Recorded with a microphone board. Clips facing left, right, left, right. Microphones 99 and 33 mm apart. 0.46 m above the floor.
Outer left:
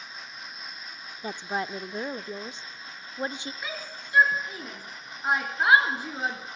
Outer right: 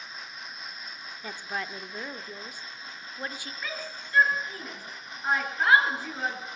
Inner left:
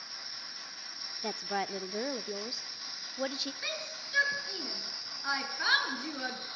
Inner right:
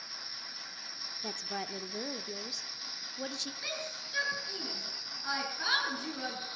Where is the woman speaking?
25° left (ahead or behind), 0.7 m.